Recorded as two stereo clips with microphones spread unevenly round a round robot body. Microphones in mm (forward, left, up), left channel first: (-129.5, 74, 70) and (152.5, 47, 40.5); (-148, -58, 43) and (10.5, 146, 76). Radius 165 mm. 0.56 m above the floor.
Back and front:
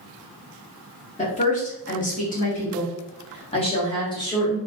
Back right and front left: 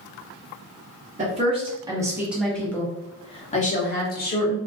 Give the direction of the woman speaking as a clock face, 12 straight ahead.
8 o'clock.